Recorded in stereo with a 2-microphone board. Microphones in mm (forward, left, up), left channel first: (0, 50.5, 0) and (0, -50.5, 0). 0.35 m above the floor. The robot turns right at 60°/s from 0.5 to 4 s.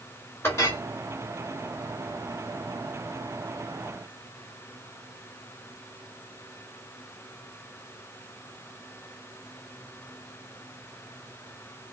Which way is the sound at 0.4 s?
25° left (ahead or behind).